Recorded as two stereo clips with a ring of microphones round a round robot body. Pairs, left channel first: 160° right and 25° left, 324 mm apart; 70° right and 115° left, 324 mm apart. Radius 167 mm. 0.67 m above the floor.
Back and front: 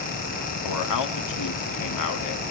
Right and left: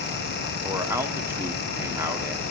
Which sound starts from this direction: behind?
A man speaking, at 0.6 s.